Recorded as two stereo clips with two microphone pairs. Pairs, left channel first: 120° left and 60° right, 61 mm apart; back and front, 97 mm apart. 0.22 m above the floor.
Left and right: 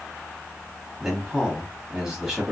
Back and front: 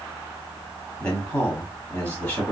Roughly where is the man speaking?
Behind right.